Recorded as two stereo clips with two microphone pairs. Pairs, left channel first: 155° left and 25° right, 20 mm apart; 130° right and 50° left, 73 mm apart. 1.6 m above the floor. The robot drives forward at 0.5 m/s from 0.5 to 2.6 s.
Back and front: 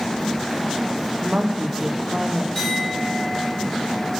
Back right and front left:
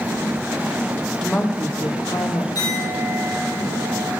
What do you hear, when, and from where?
1.2 s a woman speaking: 55° right, 0.5 m; by 2.5 s 125° right, 0.6 m
2.5 s a clink: 130° right, 3 m